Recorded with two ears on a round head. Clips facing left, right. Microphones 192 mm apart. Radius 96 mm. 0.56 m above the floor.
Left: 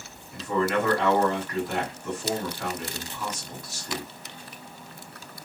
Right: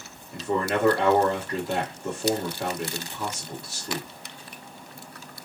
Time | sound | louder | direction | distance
0.3 | a man speaking | left 1 dB | 25° right (ahead or behind) | 1.1 m